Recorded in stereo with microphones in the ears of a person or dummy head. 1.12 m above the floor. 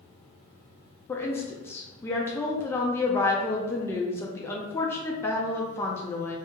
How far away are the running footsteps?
I don't hear running footsteps.